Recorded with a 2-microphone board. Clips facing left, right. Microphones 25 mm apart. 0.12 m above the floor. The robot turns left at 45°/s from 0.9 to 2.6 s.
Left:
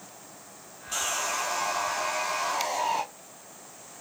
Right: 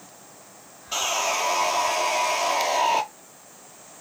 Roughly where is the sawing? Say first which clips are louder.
Right 5 dB; ahead right.